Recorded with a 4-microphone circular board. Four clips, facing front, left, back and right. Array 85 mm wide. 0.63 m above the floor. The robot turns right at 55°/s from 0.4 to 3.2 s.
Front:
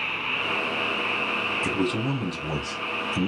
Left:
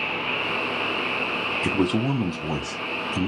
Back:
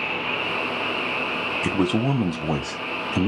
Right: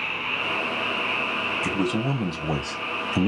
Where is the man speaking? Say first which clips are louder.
Left 3 dB, back 5 dB; 145° left, 0.8 m; by 3.3 s 130° right, 0.8 m.